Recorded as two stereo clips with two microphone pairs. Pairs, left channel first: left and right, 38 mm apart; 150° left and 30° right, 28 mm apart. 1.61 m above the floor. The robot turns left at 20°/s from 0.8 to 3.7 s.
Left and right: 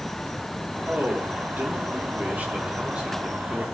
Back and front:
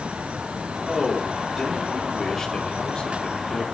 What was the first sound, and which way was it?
A man speaking, 105° right.